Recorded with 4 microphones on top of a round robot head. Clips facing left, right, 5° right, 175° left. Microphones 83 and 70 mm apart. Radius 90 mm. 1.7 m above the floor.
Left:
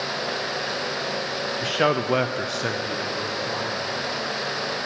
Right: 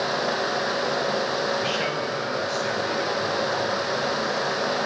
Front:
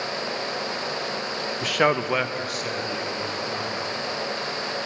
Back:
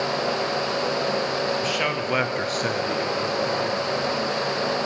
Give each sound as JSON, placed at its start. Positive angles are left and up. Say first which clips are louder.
{"t": 1.6, "sound": "a man speaking", "louder": "left 4 dB, front 3 dB", "azimuth_deg": 25, "distance_m": 0.8}